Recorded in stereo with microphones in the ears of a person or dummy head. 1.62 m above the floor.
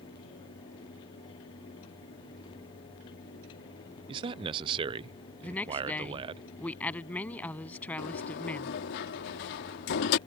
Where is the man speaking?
30° right (ahead or behind).